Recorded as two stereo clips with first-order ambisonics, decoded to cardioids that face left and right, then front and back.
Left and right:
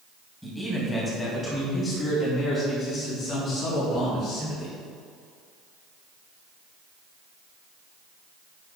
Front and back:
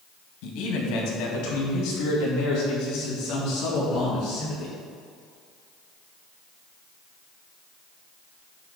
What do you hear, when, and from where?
0.4 s a man speaking: straight ahead, 3.5 m; by 4.7 s 40° left, 6.5 m